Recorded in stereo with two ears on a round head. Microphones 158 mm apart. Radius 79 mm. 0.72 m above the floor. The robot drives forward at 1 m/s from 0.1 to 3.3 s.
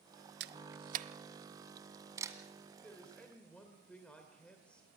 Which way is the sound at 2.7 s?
5° left (ahead or behind).